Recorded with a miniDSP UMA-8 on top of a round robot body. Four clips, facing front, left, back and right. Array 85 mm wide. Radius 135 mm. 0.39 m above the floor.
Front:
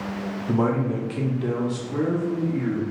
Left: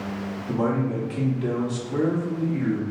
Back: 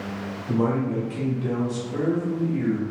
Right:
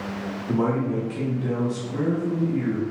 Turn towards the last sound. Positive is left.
turn(degrees=75)